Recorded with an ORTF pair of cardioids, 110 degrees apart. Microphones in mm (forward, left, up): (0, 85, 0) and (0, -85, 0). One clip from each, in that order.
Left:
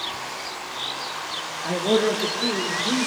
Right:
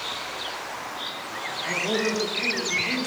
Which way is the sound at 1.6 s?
40° left.